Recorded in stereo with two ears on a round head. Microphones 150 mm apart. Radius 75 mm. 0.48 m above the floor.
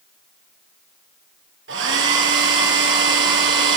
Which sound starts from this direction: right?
A hair dryer, at 1.7 s.